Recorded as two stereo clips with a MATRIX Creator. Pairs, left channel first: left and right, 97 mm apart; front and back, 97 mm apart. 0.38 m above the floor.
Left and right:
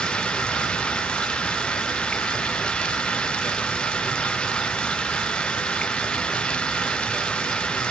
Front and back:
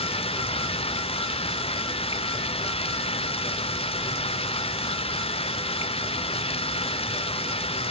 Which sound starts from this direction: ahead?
Running water, at 0.0 s.